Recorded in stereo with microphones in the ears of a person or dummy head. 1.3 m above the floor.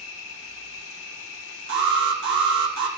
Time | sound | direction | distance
0.0 | an insect | 85° left | 6.5 m
1.7 | an alarm | 60° right (ahead or behind) | 3.5 m